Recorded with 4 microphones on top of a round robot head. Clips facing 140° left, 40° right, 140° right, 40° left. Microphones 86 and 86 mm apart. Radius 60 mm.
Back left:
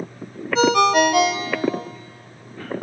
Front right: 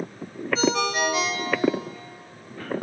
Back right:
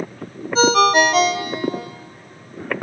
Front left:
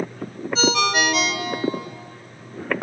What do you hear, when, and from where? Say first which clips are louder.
0.6 s a ringtone: back left 8 dB, back right 7 dB; 170° left, 1.6 m